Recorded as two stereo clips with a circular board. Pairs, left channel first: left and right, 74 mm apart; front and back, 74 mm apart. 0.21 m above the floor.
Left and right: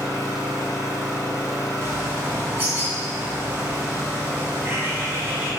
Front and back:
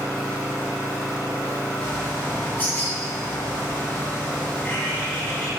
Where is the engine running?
135° left, 1.1 m.